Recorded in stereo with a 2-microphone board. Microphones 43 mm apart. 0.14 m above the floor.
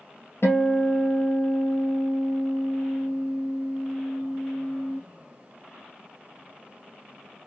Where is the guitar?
65° left (ahead or behind), 1.5 m.